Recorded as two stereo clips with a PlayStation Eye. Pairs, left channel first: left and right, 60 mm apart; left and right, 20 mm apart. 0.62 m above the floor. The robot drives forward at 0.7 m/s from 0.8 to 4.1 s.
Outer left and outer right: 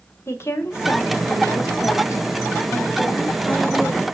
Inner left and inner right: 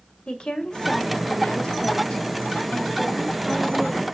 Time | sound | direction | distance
0.3 | a woman speaking | 45° left (ahead or behind) | 1.2 m